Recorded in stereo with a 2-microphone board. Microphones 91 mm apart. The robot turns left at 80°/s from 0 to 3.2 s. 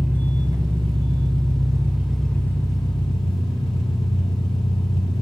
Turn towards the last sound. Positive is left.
turn(degrees=100)